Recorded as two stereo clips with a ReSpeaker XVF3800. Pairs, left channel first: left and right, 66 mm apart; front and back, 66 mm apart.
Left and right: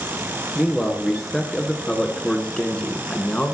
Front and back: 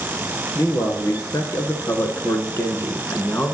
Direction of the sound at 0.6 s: 5° left.